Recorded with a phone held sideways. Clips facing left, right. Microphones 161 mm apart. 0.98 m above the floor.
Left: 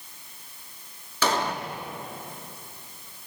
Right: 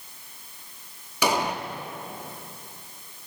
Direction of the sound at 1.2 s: 15° right (ahead or behind).